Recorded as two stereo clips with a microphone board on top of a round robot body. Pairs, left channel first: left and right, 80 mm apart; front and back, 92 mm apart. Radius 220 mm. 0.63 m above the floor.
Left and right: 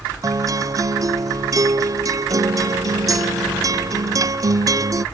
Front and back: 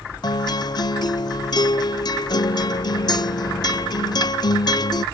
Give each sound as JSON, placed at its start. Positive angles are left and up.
{"t": 0.2, "sound": "a guitar", "azimuth_deg": -40}